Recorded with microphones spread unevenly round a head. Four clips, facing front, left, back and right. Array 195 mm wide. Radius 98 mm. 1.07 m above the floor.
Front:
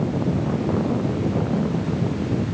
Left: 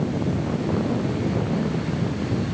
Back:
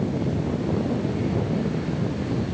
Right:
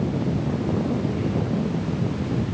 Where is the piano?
I don't hear a piano.